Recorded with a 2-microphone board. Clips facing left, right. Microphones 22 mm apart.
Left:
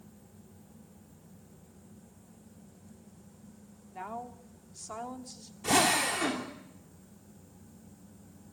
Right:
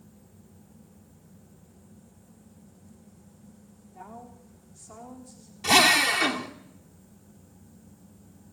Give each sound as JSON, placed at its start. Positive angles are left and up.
{"t": 3.9, "sound": "a woman speaking", "side_deg": 65, "distance_m": 3.0}
{"t": 5.6, "sound": "a drill", "side_deg": -65, "distance_m": 3.0}